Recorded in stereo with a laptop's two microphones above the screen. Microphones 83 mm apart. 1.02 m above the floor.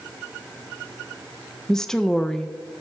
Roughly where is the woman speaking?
Centre.